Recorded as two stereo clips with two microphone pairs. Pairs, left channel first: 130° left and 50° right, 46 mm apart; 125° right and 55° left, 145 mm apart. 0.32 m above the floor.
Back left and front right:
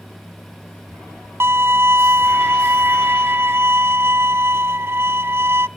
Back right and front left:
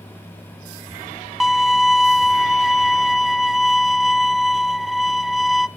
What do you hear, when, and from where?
1.4 s a violin: 30° right, 0.6 m